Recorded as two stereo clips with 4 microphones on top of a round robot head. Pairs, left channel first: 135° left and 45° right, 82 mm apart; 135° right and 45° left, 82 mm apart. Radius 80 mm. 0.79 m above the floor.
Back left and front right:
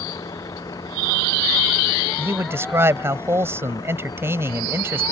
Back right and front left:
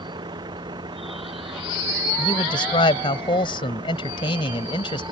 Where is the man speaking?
110° right.